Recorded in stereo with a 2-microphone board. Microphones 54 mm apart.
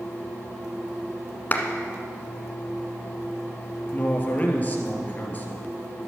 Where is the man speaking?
30° left (ahead or behind), 2.5 m.